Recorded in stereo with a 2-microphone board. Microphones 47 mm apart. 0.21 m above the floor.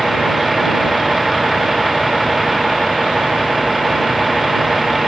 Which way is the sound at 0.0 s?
Centre (ahead or behind).